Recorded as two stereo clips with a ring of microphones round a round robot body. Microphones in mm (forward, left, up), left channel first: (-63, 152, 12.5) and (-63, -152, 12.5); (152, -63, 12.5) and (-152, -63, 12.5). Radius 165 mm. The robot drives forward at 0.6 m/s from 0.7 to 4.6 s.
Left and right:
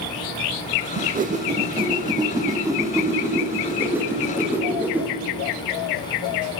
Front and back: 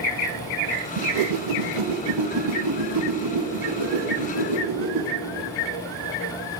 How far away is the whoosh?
About 0.6 m.